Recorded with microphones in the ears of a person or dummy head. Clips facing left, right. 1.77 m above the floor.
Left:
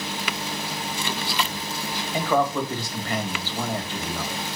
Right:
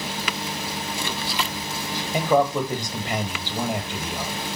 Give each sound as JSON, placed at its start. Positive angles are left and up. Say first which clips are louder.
{"t": 2.1, "sound": "a man speaking", "louder": "right 3 dB", "side_deg": -15, "distance_m": 1.7}